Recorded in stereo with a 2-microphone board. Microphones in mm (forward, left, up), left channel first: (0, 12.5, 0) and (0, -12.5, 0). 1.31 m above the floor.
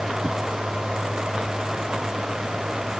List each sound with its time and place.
Only background noise.